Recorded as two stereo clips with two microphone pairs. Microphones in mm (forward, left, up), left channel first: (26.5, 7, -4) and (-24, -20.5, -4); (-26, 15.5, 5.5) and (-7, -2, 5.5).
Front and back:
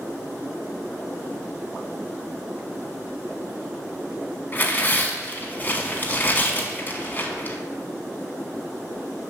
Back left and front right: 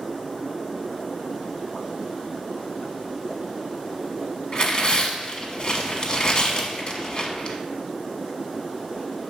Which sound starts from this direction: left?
Tearing paper, at 4.5 s.